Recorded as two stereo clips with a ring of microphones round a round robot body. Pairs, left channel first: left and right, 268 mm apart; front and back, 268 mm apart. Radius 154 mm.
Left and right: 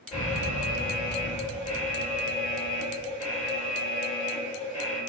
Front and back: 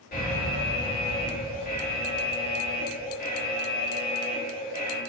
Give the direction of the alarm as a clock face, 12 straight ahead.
11 o'clock.